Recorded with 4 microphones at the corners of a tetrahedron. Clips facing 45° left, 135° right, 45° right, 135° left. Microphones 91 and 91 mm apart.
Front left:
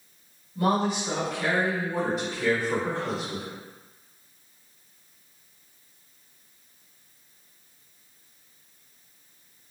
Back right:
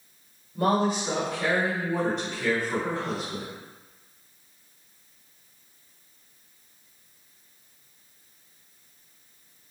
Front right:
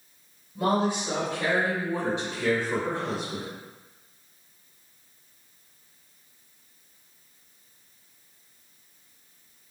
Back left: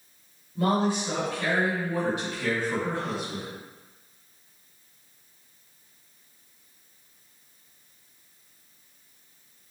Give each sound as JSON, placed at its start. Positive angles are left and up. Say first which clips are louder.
{"t": 0.6, "sound": "a woman speaking", "louder": "back right 1 dB, even", "azimuth_deg": -115, "distance_m": 1.3}